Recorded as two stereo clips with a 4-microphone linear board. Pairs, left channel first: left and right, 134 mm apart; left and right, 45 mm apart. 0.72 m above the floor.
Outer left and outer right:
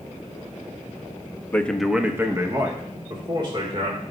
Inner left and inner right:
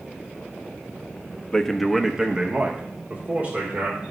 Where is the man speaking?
15° left (ahead or behind), 0.7 m; by 4.0 s 40° right (ahead or behind), 2.5 m.